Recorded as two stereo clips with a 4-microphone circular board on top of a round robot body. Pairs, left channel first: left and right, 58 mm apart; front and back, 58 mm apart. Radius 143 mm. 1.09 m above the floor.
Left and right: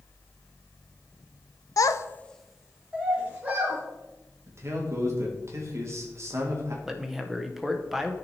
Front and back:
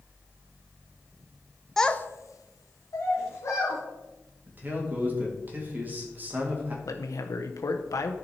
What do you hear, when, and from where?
1.8 s a child speaking: 85° left, 0.8 m; by 3.8 s 30° right, 2.5 m
4.5 s a man speaking: 125° right, 2 m
6.8 s a man speaking: 5° right, 0.8 m